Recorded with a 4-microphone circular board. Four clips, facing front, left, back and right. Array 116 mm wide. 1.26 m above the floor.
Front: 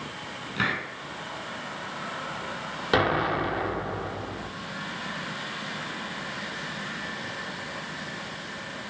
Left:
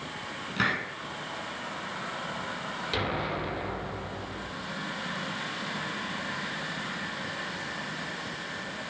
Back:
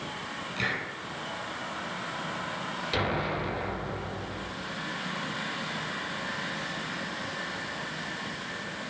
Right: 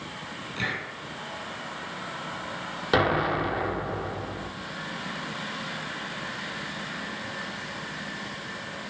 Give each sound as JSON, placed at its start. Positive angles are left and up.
{"t": 0.6, "sound": "a hiss", "azimuth_deg": 55, "distance_m": 3.5}
{"t": 2.9, "sound": "an explosion", "azimuth_deg": -50, "distance_m": 2.0}